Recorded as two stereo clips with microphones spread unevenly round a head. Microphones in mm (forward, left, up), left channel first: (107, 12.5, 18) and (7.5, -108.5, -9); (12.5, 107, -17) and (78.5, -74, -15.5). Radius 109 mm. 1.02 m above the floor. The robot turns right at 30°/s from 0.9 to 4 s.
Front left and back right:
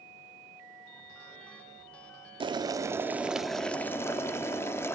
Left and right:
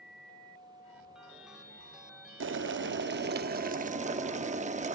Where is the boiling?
70° right, 0.8 m; by 5.0 s 20° right, 0.8 m.